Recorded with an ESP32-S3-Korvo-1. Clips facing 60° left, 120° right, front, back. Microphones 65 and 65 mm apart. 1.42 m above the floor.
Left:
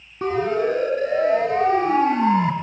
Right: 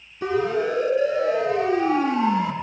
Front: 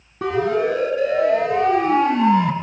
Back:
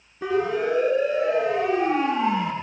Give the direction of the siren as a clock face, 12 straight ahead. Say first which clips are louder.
Left 1 dB, front 4 dB; 11 o'clock.